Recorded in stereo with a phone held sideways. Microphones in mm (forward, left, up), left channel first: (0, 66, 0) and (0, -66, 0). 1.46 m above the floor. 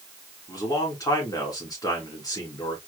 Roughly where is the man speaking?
Left.